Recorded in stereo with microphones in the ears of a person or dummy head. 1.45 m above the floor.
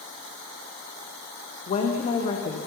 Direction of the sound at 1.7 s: 35° left (ahead or behind).